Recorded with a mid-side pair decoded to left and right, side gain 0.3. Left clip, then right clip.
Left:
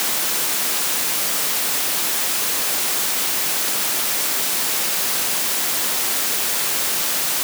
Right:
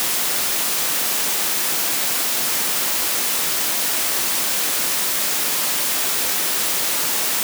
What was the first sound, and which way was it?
Only background noise.